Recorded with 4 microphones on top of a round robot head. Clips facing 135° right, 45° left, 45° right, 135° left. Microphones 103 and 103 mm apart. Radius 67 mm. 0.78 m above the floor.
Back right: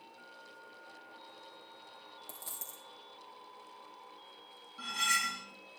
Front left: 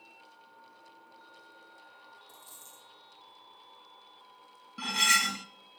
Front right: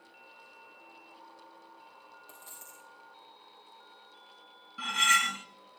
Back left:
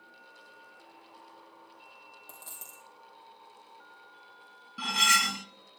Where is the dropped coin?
160° right, 3 m.